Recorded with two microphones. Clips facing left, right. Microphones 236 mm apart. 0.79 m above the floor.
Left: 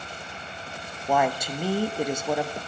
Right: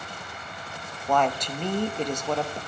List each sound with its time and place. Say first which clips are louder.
1.1 s a woman speaking: even; 10° left (ahead or behind), 0.7 m